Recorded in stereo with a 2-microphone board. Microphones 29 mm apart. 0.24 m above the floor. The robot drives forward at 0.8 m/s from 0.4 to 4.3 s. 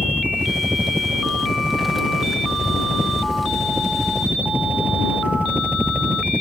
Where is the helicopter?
65° right (ahead or behind); by 6.4 s 60° right (ahead or behind).